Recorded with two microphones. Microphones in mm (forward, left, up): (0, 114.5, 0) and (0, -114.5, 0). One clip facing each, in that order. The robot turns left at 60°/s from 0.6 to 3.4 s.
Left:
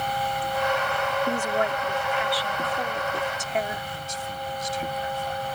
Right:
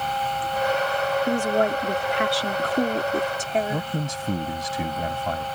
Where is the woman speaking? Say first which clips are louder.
Right 6 dB; 20° right; by 3.9 s 145° right.